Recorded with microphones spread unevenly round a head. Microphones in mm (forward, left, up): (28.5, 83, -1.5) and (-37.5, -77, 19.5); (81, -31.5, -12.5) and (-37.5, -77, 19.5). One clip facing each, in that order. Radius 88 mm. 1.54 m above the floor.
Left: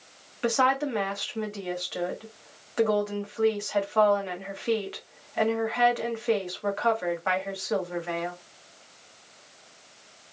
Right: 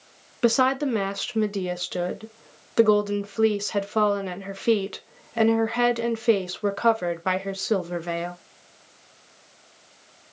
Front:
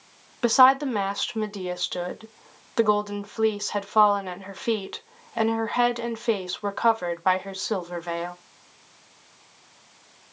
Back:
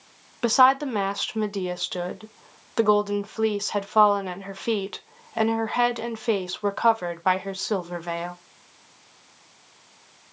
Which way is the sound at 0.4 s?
75° right.